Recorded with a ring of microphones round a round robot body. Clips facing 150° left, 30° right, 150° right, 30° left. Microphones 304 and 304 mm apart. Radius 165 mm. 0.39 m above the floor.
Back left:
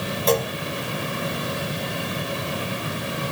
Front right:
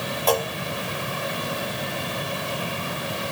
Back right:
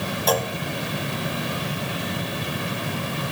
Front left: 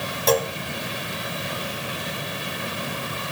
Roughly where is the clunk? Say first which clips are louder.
Back left 2 dB, front left 4 dB; left.